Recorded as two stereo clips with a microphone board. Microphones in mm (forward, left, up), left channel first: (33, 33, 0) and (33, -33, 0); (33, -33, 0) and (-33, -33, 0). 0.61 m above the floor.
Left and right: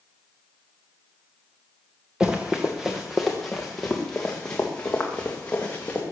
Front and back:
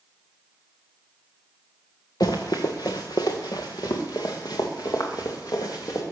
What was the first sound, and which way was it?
Running footsteps, 15° right.